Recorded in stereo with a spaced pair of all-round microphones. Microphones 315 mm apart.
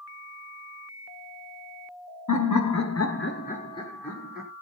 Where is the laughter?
70° left (ahead or behind), 0.8 m; by 4.5 s 5° right (ahead or behind), 1.2 m.